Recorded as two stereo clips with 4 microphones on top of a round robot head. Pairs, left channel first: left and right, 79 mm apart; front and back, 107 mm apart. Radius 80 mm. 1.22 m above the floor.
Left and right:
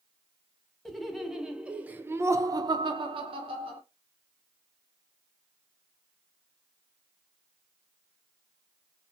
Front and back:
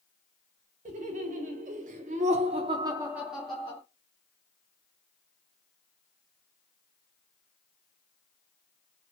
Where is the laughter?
175° left, 1.2 m; by 3.8 s 80° right, 0.9 m.